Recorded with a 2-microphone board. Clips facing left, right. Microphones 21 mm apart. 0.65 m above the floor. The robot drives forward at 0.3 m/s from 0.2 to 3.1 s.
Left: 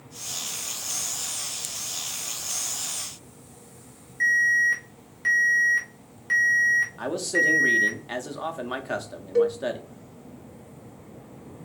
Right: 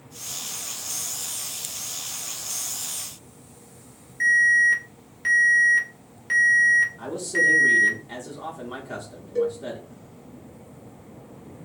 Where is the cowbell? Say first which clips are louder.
Left 3 dB; 65° left (ahead or behind), 0.9 m.